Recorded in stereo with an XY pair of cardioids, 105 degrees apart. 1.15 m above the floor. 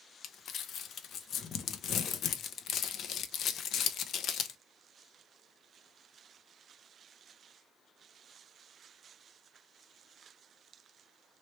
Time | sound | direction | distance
0.2 | crumpling | 65° left | 0.6 m